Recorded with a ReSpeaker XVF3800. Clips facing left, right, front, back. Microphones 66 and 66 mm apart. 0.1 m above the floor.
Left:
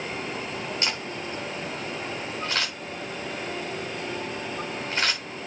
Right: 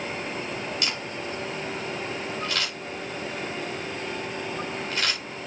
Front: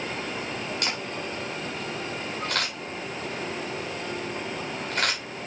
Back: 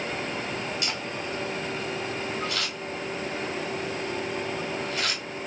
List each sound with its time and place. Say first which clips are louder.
0.8 s a camera shutter: even, front 1 dB; 30° left, 8.5 m